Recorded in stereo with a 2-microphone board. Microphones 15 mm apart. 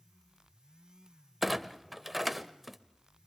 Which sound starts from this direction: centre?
A clunk, at 1.4 s.